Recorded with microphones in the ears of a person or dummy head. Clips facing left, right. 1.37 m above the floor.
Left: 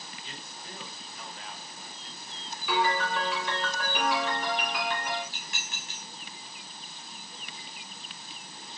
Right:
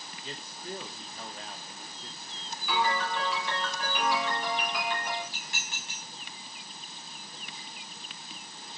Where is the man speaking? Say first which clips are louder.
Right 9 dB; 35° right (ahead or behind), 0.9 m.